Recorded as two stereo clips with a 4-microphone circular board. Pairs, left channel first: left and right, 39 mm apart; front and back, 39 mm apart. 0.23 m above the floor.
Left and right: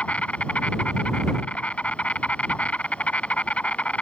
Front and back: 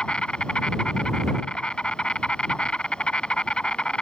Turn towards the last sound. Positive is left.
turn(degrees=50)